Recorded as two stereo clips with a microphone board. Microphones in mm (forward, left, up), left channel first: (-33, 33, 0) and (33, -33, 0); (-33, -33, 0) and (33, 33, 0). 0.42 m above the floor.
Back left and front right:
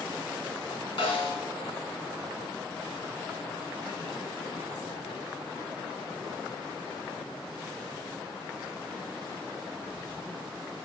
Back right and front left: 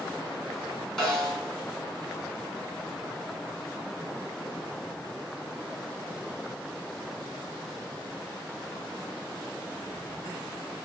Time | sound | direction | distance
1.0 | a snare drum | 140° left | 4.5 m